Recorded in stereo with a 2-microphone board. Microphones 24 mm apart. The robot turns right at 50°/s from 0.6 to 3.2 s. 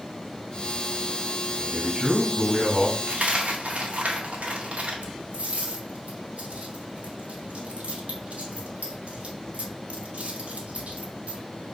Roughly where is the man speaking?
Right.